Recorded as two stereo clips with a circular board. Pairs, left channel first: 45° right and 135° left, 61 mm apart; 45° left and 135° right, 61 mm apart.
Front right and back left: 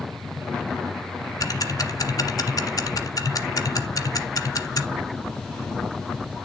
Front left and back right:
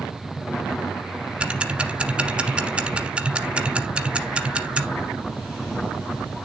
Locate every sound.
1.4 s ticking: 60° right, 0.9 m